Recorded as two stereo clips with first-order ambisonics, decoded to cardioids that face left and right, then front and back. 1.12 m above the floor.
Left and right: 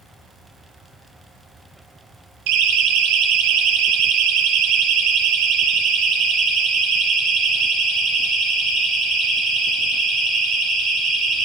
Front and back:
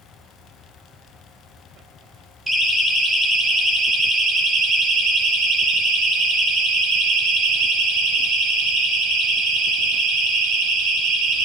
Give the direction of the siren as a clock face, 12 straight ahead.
3 o'clock.